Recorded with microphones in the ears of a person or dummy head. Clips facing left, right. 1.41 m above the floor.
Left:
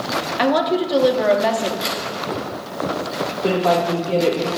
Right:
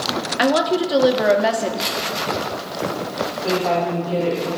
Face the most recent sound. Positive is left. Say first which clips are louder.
# left 3 dB
turn(degrees=70)  # may be behind; listen again after turning